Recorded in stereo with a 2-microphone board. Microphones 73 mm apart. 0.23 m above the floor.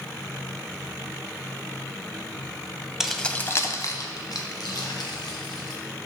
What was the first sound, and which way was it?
Keys jangling, 5° right (ahead or behind).